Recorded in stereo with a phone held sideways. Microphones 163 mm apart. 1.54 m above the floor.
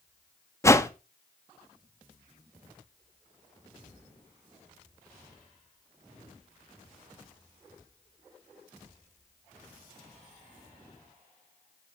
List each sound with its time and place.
0.6 s a whoosh: 20° left (ahead or behind), 0.6 m